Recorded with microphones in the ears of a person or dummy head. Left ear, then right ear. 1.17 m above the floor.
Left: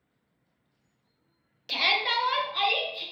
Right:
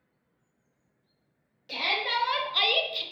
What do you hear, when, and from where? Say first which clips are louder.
1.7 s a shout: left 3 dB; 30° left (ahead or behind), 0.6 m; by 3.0 s 50° right (ahead or behind), 0.7 m